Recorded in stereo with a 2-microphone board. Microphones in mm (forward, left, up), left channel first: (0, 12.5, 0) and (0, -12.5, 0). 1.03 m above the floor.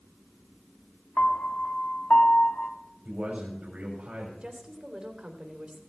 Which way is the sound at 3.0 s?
70° right (ahead or behind).